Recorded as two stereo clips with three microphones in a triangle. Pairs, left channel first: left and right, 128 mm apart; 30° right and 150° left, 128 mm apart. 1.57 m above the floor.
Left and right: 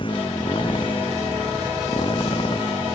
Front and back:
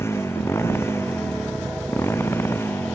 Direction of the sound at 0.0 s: 40° left.